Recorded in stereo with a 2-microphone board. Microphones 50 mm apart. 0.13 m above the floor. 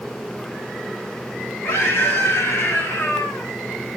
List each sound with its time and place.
1.6 s a scream: 60° left (ahead or behind), 5.5 m; by 3.5 s 50° left (ahead or behind), 5 m